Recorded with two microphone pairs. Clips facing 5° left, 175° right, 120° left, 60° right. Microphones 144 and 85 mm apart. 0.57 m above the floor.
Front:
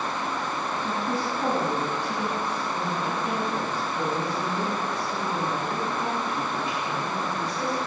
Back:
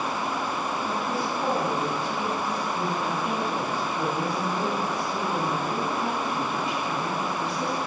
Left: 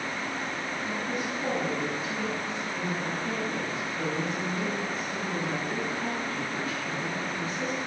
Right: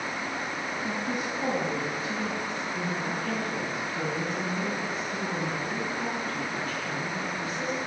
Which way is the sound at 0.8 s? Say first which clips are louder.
Front 2 dB, right 1 dB; 85° right.